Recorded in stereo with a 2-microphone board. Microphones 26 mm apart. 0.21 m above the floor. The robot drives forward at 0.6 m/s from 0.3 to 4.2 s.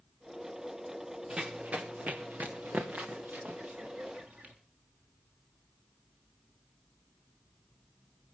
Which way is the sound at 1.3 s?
40° right (ahead or behind).